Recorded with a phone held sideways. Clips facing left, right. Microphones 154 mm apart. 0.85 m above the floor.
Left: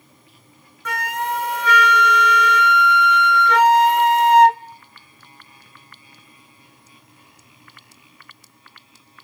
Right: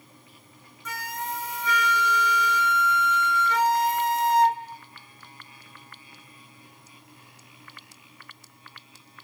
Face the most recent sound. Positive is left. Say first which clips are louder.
# left 9 dB
turn(degrees=70)  # may be behind; listen again after turning